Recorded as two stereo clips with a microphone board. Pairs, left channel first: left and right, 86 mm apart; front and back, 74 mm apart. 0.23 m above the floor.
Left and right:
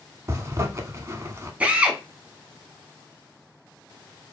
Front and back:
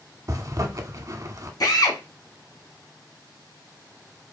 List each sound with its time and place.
0.3 s a zipper: 140° right, 0.6 m
1.6 s a drill: 20° right, 0.9 m